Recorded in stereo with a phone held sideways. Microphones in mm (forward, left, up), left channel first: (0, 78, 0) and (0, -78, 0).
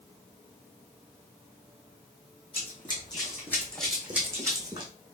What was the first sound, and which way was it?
Running footsteps, 40° left (ahead or behind).